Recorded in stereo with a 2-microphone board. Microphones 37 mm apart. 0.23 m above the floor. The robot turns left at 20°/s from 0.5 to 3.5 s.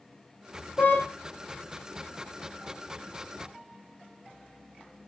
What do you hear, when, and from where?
0.8 s a car horn: 55° left (ahead or behind), 7 m; by 1.0 s 50° left (ahead or behind), 7 m